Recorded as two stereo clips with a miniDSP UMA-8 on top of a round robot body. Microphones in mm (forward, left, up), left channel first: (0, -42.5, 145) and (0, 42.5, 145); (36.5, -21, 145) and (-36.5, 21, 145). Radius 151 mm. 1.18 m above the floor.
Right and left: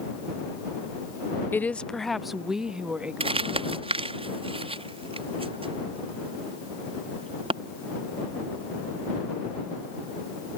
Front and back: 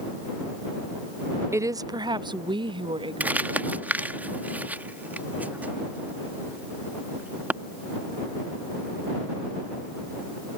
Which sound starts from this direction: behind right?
A woman speaking, at 1.5 s.